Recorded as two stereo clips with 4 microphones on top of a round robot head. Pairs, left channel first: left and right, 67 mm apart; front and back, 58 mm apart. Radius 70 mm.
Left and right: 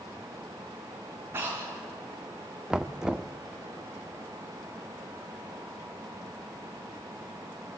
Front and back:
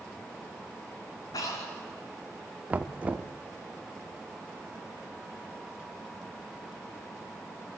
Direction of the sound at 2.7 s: 155° right.